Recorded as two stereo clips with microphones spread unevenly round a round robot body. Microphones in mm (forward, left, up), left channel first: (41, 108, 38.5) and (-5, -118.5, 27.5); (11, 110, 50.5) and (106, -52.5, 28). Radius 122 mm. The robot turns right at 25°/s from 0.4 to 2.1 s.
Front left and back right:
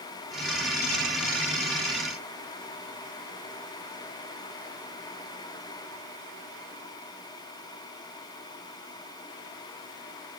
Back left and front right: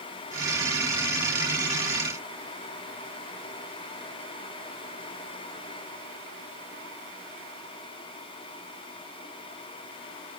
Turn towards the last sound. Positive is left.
No sound to turn to.